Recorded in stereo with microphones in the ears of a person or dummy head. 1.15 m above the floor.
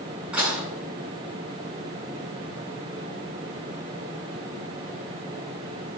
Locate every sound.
0.3 s dishes clattering: 10° right (ahead or behind), 7.5 m